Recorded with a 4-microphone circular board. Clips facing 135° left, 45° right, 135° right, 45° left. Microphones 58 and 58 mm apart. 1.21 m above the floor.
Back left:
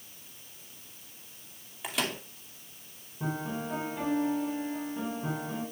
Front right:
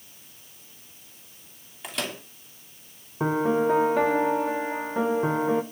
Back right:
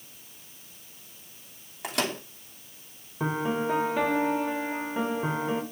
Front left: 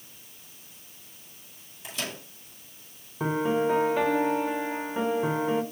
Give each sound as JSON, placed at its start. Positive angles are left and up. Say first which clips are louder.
{"t": 1.8, "sound": "a microwave", "louder": "even, back right 6 dB", "azimuth_deg": -140, "distance_m": 2.5}
{"t": 3.2, "sound": "a piano", "louder": "front right 12 dB, front left 3 dB", "azimuth_deg": -45, "distance_m": 1.3}